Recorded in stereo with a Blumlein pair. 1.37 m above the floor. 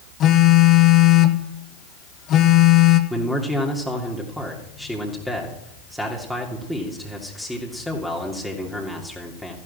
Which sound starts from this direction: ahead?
A man speaking, at 3.1 s.